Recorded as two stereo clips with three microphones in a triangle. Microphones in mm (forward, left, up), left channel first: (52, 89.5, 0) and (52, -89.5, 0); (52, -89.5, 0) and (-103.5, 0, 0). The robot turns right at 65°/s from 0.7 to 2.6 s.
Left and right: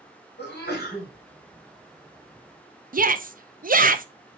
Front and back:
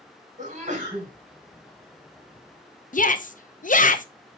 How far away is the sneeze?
About 3.5 m.